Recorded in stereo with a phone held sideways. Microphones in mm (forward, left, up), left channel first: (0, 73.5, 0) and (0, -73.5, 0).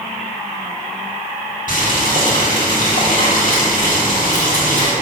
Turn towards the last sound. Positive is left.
turn(degrees=60)  # may be behind; listen again after turning